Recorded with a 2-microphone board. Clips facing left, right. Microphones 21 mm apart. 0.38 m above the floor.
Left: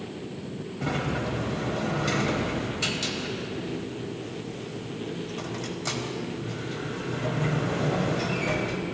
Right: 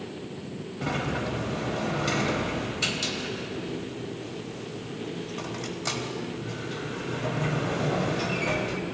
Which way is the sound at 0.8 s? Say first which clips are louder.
Even; 5° right (ahead or behind).